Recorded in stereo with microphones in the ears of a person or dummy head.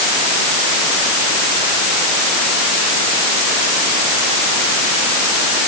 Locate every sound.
Only background noise.